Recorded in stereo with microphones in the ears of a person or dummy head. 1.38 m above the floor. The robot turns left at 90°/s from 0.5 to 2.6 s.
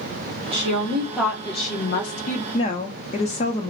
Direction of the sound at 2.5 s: 30° left (ahead or behind).